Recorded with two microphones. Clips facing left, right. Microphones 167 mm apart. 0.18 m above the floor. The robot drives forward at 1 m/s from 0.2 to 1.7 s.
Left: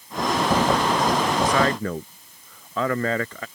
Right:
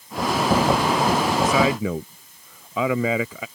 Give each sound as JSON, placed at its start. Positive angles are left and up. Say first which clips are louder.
{"t": 1.4, "sound": "a man speaking", "louder": "right 2 dB", "side_deg": -10}